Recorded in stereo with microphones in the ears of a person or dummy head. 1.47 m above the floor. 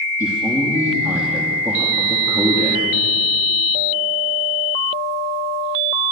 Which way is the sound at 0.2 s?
5° right (ahead or behind).